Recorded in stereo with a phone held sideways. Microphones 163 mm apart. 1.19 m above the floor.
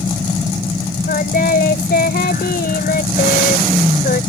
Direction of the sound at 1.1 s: 75° left (ahead or behind).